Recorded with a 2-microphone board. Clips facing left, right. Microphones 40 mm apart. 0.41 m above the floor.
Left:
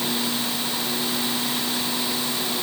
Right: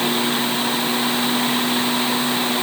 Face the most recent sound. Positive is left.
No sound to turn to.